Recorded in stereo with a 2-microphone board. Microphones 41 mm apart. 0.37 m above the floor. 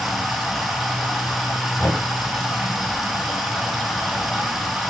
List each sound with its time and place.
0.0 s running water: 5° right (ahead or behind), 2 m
1.8 s knocking: 55° left (ahead or behind), 1.7 m